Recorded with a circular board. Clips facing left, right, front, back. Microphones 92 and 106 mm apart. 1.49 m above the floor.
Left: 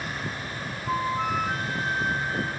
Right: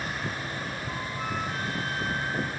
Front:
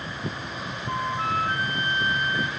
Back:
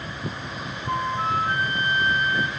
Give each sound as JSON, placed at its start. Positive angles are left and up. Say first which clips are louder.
{"t": 0.9, "sound": "a flute", "louder": "left 11 dB, back 2 dB", "azimuth_deg": 120, "distance_m": 2.0}